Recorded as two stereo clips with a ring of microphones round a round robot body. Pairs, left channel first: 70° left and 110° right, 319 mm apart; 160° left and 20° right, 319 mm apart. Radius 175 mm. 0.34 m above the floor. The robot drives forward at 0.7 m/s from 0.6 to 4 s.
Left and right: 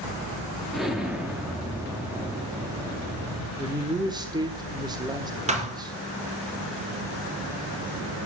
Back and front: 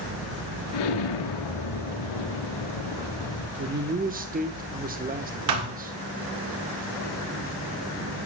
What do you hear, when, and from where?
0.7 s an explosion: 160° left, 2.0 m; by 3.5 s 170° left, 4 m
3.6 s a man speaking: 30° right, 1.4 m; by 6.0 s 50° right, 1.2 m
5.5 s a thud: 40° right, 2.5 m